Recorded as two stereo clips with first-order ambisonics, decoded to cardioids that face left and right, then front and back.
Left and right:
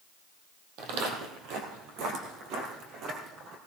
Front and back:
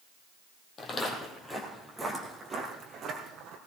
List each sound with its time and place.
0.8 s footsteps: 65° right, 2.5 m; by 3.6 s 135° right, 2.5 m